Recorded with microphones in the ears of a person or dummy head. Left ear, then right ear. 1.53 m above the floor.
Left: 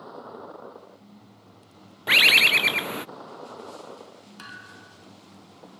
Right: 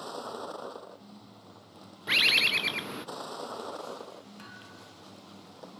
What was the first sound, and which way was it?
A vehicle, 90° right.